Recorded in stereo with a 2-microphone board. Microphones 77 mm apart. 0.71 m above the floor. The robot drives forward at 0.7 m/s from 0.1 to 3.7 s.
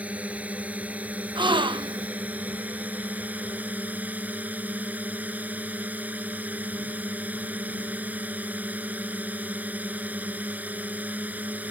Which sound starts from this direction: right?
A gasp, at 1.4 s.